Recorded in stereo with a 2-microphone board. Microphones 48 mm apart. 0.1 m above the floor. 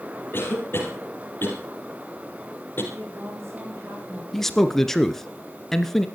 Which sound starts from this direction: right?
A woman speaking, at 2.9 s.